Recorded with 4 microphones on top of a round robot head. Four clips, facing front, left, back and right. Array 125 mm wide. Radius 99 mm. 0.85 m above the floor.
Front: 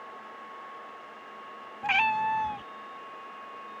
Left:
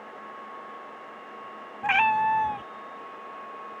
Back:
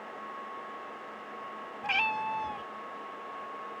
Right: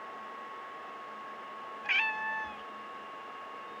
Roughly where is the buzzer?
I don't hear a buzzer.